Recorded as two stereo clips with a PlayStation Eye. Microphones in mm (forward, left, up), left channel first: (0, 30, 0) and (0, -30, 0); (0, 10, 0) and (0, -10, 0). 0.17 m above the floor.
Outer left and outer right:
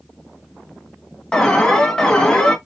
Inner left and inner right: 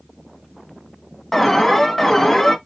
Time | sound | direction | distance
1.3 | an alarm | 10° left (ahead or behind) | 0.8 m